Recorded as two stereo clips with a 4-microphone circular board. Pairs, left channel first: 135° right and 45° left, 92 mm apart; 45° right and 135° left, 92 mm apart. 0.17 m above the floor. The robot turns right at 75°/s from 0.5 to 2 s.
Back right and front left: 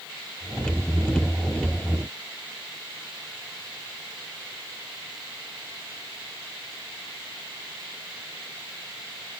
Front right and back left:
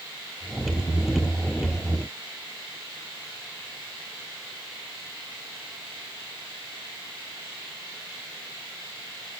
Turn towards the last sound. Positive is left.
No sound to turn to.